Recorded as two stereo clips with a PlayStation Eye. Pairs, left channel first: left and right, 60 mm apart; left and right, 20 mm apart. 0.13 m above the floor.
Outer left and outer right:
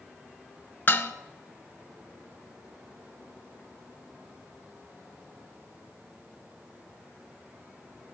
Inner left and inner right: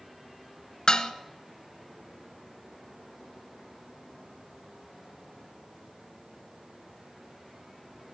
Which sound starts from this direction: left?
Dishes clattering, at 0.9 s.